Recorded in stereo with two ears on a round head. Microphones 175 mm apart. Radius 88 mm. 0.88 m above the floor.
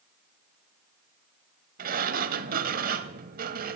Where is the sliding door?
45° right (ahead or behind), 0.9 m.